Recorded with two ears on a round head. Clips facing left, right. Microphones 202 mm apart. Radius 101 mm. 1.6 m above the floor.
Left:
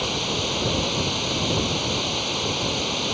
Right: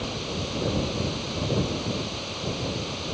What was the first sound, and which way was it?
Running water, 65° left (ahead or behind).